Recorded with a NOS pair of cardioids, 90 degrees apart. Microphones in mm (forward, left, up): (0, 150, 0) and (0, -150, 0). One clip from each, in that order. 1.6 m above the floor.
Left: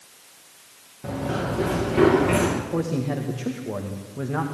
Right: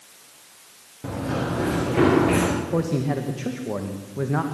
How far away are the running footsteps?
About 10 m.